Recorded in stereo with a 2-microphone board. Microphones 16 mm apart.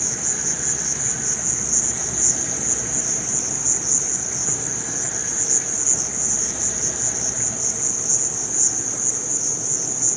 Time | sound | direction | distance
0.0 | an insect | 15° right (ahead or behind) | 0.7 m